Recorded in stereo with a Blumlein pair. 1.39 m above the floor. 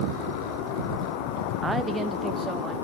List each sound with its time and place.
1.6 s a woman speaking: 10° right, 0.6 m; by 2.8 s 15° right, 2 m